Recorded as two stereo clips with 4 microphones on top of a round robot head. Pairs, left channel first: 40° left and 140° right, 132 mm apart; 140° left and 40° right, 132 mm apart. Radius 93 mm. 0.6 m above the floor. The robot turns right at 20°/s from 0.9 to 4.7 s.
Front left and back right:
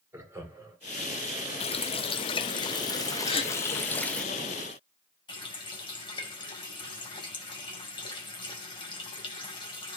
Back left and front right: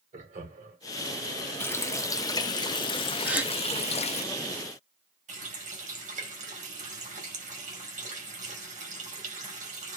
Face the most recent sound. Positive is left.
turn(degrees=-15)